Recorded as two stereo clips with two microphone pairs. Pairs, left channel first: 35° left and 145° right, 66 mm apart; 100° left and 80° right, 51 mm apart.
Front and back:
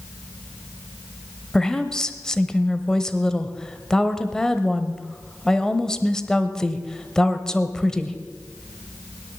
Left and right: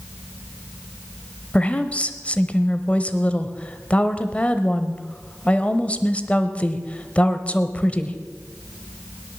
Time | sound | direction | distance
1.5 | a woman speaking | 105° left | 0.9 m